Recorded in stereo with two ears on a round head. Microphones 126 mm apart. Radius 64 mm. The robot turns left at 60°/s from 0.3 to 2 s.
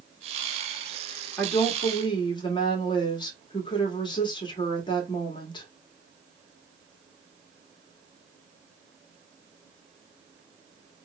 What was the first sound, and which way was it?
A woman speaking, 170° left.